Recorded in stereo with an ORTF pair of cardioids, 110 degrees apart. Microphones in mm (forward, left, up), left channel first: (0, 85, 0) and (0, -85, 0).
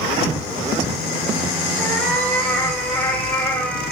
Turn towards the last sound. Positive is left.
turn(degrees=10)